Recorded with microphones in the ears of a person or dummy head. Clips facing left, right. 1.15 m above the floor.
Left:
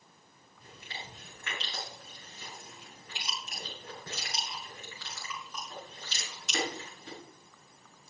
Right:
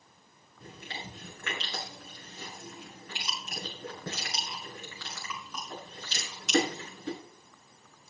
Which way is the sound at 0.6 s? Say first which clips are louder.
Right 4 dB; 55° right (ahead or behind).